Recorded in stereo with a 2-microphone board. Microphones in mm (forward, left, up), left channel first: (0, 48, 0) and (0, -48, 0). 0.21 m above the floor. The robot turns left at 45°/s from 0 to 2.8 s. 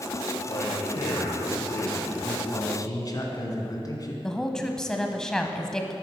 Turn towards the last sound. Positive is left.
turn(degrees=5)  # may be behind; listen again after turning